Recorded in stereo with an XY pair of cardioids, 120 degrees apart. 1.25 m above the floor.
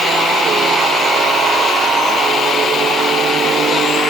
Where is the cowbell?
I don't hear a cowbell.